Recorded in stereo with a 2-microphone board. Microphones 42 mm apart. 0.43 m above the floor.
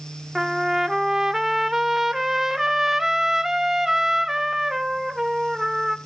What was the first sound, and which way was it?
A trumpet, 10° right (ahead or behind).